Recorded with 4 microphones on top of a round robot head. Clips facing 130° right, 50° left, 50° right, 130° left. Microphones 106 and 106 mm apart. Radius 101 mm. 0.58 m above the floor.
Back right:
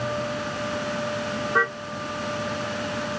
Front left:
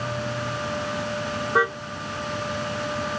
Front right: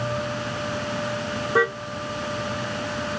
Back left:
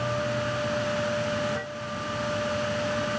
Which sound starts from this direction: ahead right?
A car horn, at 1.6 s.